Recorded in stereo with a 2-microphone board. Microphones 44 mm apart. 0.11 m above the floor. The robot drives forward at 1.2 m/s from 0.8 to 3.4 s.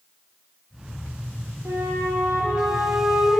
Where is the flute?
70° right (ahead or behind), 2.5 m; by 3.4 s 50° right (ahead or behind), 3 m.